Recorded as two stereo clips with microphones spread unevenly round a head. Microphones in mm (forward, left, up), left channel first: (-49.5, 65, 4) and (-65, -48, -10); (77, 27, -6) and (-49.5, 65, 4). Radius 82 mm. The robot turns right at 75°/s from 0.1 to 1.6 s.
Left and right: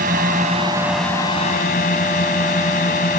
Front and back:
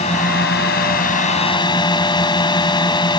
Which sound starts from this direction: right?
A drone, at 0.0 s.